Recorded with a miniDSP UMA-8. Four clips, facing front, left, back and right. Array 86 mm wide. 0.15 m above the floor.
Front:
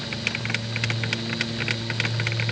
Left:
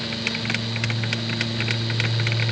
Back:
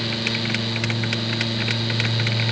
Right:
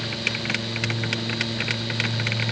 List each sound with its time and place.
Only background noise.